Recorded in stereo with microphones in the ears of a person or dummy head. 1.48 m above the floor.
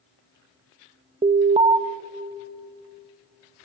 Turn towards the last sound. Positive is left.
turn(degrees=-30)  # may be behind; listen again after turning